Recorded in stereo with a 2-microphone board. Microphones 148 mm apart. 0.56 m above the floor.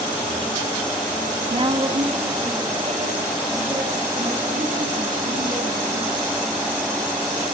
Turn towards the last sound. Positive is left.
turn(degrees=-70)  # may be behind; listen again after turning